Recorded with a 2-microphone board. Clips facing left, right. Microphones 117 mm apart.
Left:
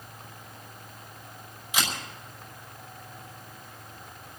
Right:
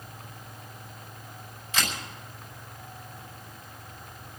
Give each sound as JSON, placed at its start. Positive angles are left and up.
{"t": 1.7, "sound": "a camera shutter", "side_deg": 15, "distance_m": 5.0}